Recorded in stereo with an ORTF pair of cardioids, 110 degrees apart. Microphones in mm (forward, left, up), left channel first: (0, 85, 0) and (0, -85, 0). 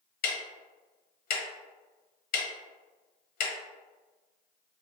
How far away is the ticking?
About 0.9 m.